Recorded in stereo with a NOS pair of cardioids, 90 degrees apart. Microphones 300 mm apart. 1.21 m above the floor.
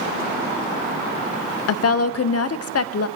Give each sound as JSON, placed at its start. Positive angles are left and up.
{"t": 1.7, "sound": "a woman speaking", "azimuth_deg": 55, "distance_m": 0.6}